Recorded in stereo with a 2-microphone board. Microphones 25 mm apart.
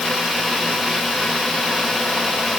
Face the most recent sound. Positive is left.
No sound to turn to.